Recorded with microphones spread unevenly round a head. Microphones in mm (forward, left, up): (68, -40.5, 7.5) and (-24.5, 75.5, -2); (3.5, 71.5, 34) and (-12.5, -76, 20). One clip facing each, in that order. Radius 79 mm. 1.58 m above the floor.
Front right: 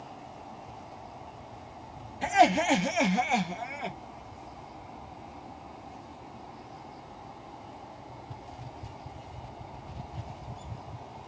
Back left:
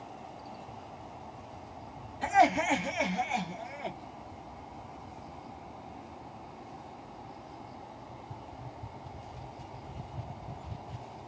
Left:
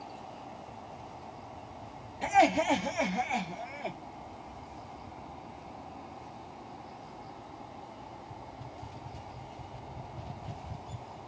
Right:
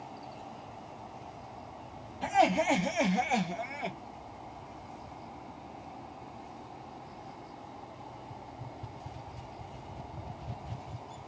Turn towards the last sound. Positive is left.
turn(degrees=-75)